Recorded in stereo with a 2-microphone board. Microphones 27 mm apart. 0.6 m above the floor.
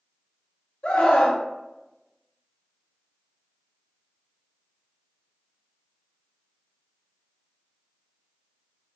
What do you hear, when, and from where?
0.8 s a scream: 45° left (ahead or behind), 0.9 m